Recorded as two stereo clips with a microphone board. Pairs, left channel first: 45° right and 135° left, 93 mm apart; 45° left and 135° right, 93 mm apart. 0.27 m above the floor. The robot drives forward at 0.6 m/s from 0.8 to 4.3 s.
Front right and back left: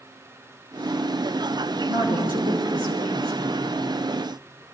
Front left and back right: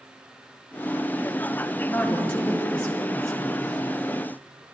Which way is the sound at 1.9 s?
120° left.